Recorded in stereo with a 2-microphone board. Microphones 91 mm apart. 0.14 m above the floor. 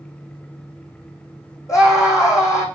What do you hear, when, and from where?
1.7 s a scream: 35° left (ahead or behind), 7 m